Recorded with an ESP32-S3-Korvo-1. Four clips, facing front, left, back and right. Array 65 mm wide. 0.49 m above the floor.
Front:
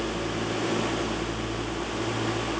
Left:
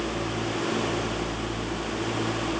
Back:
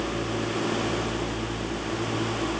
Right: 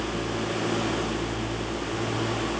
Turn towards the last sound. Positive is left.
No sound to turn to.